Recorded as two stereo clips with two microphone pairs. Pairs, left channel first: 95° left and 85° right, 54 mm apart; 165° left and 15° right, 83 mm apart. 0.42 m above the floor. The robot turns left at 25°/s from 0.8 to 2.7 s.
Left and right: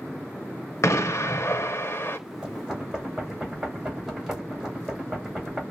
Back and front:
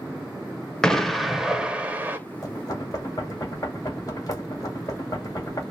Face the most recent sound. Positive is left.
turn(degrees=-165)